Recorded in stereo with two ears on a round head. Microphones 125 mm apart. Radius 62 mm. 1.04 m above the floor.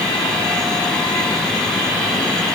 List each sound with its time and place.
Only background noise.